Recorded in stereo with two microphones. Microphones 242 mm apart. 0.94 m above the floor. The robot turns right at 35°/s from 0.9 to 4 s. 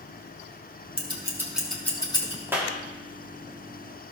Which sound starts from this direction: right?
Scissors, at 1.0 s.